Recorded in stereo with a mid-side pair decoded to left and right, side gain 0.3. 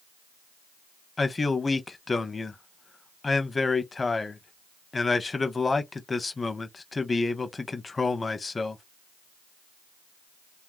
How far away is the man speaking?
About 0.7 m.